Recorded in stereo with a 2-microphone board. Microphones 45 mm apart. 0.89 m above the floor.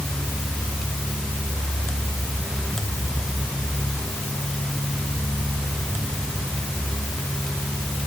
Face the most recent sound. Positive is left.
No sound to turn to.